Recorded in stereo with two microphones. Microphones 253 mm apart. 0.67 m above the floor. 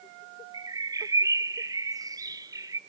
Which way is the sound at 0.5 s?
15° right (ahead or behind).